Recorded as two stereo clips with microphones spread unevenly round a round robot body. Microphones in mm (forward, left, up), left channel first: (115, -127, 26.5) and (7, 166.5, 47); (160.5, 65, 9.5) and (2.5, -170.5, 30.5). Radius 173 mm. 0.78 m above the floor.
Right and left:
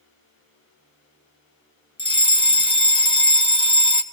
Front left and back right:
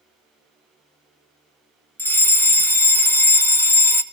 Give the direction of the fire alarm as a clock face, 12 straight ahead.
12 o'clock.